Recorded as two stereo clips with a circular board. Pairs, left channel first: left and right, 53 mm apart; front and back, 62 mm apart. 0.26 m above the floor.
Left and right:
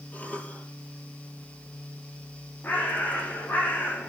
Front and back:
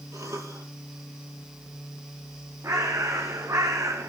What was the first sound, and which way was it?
A cough, 150° left.